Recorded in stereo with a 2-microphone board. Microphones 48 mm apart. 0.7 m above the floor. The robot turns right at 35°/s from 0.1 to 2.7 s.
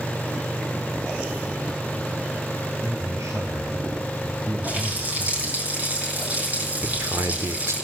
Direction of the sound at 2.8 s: 80° right.